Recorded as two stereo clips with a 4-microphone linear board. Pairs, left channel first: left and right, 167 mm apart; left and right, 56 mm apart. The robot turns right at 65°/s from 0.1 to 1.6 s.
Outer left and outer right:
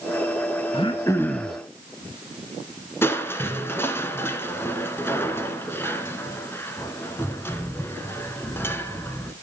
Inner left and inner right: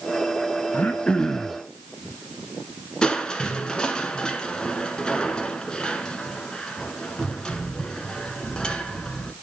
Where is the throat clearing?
130° left, 1.0 m; by 1.6 s 175° right, 1.0 m.